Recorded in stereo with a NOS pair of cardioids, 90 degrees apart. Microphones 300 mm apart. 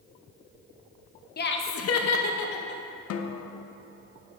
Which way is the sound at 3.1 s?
55° left.